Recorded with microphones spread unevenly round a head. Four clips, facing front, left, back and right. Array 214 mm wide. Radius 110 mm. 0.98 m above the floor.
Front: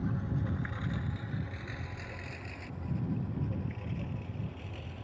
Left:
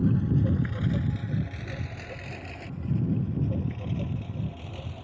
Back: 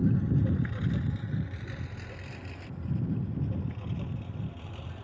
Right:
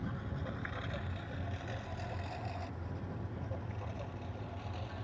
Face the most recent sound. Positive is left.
turn(degrees=85)